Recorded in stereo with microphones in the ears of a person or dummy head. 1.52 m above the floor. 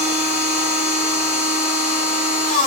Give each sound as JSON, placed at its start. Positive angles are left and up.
{"t": 0.0, "sound": "a machine running", "side_deg": 30, "distance_m": 1.1}